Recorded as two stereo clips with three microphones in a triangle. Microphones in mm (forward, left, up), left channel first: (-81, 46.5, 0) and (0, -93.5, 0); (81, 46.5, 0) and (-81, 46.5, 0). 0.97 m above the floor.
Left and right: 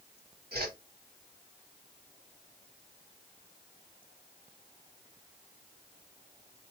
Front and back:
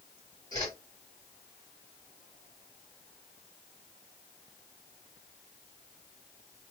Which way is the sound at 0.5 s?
65° right.